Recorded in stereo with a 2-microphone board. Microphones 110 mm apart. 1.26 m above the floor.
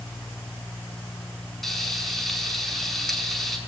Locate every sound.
1.6 s frying: centre (ahead or behind), 6 m